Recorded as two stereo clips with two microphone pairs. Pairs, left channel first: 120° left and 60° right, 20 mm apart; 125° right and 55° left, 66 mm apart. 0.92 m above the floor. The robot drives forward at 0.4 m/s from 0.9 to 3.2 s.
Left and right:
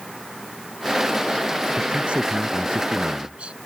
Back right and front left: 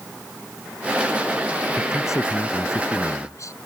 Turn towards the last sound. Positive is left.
turn(degrees=-90)